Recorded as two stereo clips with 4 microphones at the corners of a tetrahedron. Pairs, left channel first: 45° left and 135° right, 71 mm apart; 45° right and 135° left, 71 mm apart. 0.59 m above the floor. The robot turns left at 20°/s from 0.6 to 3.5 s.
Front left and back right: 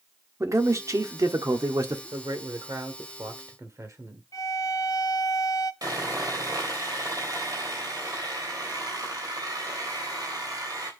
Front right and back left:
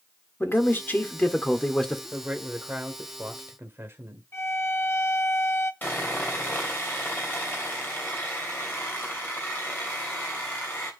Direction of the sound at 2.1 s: 145° right.